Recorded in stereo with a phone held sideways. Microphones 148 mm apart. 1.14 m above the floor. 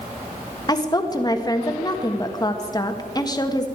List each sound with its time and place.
0.7 s a woman speaking: 25° left (ahead or behind), 1.5 m